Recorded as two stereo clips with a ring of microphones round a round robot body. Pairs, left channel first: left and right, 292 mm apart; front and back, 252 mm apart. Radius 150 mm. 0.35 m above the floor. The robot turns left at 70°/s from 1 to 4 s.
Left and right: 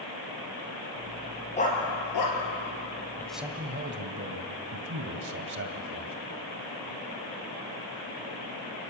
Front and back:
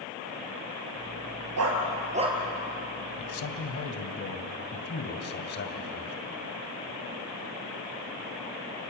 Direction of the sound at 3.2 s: 10° left.